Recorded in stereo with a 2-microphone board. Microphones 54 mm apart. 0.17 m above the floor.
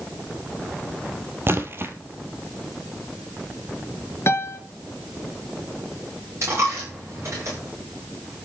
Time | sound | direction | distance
1.5 | a splash | 45° right (ahead or behind) | 1.4 m
4.3 | a piano | 50° left (ahead or behind) | 1.3 m
6.4 | a dropped coin | 55° right (ahead or behind) | 8 m